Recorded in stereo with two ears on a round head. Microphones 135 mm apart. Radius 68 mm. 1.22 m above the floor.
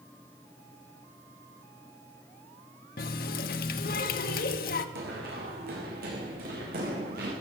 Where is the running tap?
60° left (ahead or behind), 1.1 m.